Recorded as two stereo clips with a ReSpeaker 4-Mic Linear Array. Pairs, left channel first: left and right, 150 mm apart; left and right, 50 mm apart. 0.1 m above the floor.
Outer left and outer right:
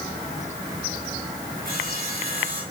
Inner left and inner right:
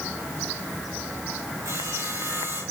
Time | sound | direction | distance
1.6 | sawing | 65° right (ahead or behind) | 8.5 m